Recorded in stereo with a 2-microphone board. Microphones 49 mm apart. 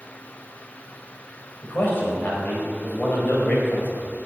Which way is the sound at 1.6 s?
40° left (ahead or behind).